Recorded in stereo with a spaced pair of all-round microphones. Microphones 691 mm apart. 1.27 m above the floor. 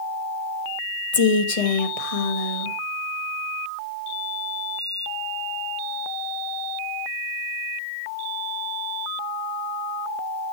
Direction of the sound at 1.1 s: 55° left (ahead or behind).